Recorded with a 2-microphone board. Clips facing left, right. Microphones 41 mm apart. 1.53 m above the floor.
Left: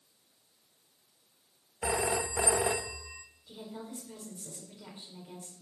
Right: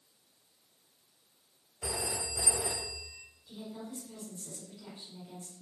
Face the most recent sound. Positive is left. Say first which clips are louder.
# even
turn(degrees=25)  # may be behind; listen again after turning